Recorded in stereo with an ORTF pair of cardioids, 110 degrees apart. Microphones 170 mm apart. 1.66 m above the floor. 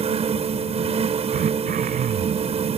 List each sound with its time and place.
0.0 s a fan: 40° right
1.3 s throat clearing: 55° right